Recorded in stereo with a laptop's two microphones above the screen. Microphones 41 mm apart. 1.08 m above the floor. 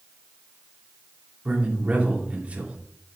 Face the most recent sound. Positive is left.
turn(degrees=-30)  # may be behind; listen again after turning